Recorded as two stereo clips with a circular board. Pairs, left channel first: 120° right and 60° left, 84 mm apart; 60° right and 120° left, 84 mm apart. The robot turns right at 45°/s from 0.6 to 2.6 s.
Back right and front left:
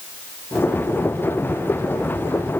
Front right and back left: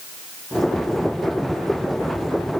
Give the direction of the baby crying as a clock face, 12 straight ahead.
No baby crying in this recording.